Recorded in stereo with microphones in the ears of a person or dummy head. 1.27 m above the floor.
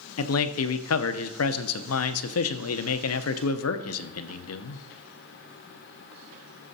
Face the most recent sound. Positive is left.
turn(degrees=75)  # may be behind; listen again after turning